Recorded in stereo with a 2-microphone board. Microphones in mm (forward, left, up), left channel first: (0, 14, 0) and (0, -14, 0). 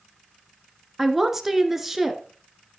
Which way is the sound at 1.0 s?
10° right (ahead or behind).